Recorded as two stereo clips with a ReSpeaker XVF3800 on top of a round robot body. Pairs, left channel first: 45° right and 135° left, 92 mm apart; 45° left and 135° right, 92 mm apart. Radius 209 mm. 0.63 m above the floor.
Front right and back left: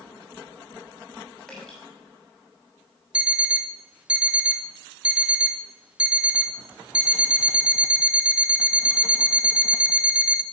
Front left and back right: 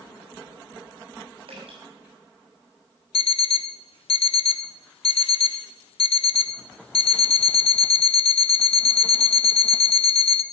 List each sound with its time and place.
1.5 s dripping: 125° right, 7 m
3.1 s an alarm clock: 55° left, 0.7 m